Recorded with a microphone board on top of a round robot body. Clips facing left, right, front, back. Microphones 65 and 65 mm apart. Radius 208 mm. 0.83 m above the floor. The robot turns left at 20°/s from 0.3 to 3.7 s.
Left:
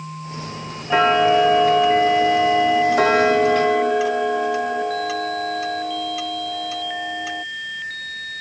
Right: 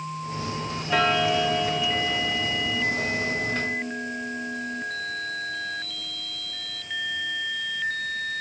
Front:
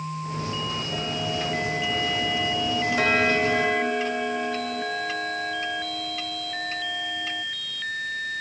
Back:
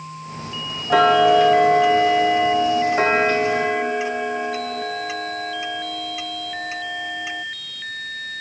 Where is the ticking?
160° left; by 7.5 s 105° left.